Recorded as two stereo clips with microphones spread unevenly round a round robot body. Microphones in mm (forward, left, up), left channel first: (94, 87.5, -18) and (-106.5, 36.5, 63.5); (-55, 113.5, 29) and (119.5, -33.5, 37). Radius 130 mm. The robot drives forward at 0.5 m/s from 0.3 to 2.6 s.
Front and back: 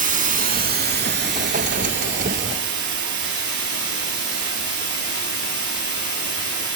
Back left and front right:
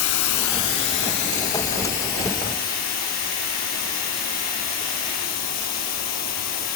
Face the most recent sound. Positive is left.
turn(degrees=170)